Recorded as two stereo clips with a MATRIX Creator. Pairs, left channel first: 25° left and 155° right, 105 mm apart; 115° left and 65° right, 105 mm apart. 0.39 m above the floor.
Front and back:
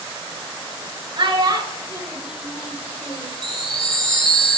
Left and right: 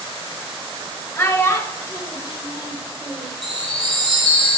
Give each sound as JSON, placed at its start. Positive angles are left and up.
{"t": 1.2, "sound": "a child speaking", "azimuth_deg": 175, "distance_m": 1.7}
{"t": 3.4, "sound": "a chime", "azimuth_deg": 105, "distance_m": 1.6}